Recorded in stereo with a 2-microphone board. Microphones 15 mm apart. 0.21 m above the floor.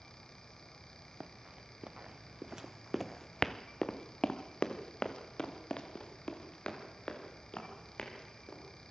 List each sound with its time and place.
1.2 s running footsteps: 80° right, 1.5 m; by 8.6 s 65° left (ahead or behind), 5 m